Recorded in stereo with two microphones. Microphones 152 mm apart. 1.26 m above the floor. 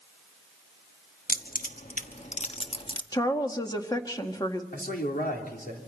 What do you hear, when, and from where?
1.3 s keys jangling: 70° left (ahead or behind), 1.2 m; by 3.0 s 30° left (ahead or behind), 1.2 m
3.1 s a woman speaking: 25° left (ahead or behind), 1.7 m
4.7 s a man speaking: 85° left, 3.5 m